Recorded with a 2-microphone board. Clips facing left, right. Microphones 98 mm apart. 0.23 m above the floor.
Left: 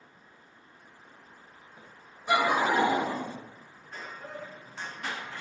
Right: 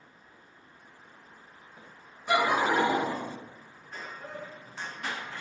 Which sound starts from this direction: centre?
Laughter, at 2.3 s.